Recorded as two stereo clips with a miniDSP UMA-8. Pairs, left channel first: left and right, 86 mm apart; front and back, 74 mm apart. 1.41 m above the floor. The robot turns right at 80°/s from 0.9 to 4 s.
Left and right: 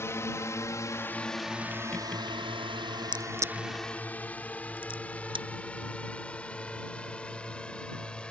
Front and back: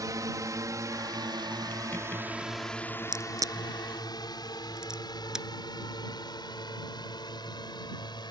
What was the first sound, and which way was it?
A drone, 150° left.